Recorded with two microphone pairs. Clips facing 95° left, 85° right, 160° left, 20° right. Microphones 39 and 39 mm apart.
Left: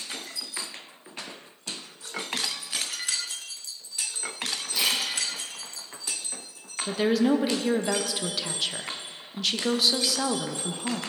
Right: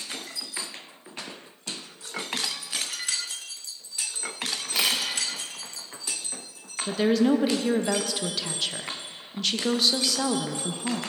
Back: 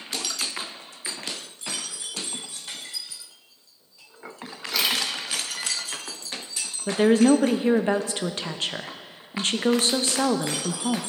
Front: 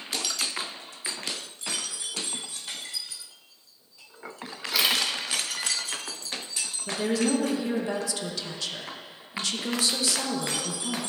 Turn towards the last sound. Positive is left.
turn(degrees=170)